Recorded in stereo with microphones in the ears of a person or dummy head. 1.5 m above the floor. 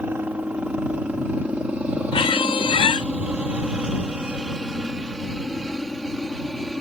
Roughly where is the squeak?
Left.